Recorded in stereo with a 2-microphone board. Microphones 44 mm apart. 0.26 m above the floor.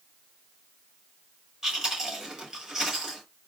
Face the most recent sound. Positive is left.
turn(degrees=-10)  # may be behind; listen again after turning